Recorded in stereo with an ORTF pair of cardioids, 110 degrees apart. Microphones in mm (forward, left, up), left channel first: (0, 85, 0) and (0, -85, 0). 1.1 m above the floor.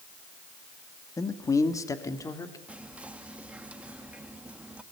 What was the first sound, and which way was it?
A man speaking, 20° left.